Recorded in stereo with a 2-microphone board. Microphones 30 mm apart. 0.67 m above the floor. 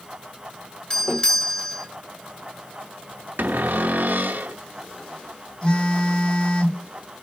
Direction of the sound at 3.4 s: 85° right.